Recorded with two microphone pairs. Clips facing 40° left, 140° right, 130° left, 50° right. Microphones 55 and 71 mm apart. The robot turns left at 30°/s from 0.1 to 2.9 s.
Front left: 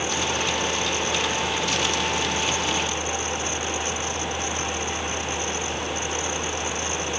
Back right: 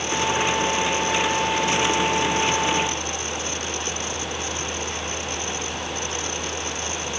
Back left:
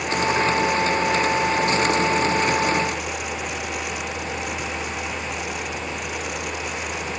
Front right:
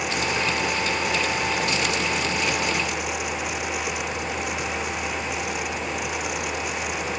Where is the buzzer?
No buzzer in this recording.